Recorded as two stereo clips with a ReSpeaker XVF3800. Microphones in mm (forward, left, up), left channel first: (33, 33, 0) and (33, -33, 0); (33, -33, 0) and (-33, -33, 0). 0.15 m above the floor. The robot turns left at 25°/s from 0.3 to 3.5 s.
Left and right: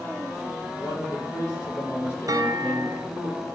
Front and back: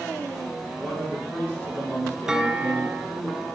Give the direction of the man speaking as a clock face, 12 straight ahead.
9 o'clock.